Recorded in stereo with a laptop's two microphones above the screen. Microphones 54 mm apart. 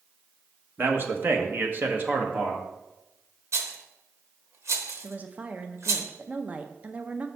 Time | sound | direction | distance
0.8 | a man speaking | 40° right (ahead or behind) | 1.1 m
3.5 | a rattle | 60° right (ahead or behind) | 0.9 m
5.0 | a woman speaking | 25° right (ahead or behind) | 0.6 m